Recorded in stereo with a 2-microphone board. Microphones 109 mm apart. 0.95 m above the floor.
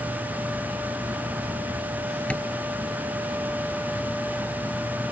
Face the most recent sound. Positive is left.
turn(degrees=10)  # may be behind; listen again after turning